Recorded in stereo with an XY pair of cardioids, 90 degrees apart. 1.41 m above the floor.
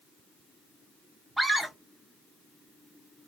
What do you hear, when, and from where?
1.4 s a scream: 20° right, 0.8 m